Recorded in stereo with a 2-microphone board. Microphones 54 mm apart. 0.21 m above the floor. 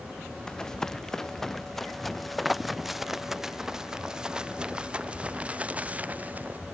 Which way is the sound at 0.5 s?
15° left (ahead or behind).